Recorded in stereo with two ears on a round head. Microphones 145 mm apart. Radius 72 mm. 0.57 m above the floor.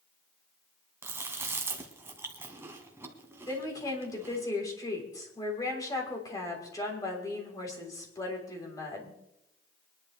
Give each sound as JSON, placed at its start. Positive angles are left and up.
{"t": 1.0, "sound": "chewing", "side_deg": -15, "distance_m": 1.5}
{"t": 3.5, "sound": "a woman speaking", "side_deg": 20, "distance_m": 3.5}